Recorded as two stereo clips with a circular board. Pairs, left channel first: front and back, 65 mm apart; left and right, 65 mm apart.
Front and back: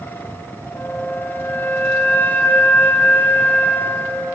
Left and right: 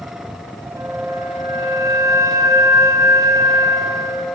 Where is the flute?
60° right, 3.5 m.